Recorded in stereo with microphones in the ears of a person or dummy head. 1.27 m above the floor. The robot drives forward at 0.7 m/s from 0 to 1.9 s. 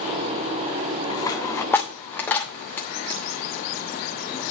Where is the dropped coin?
20° left (ahead or behind), 0.7 m; by 4.5 s 15° left (ahead or behind), 1.1 m.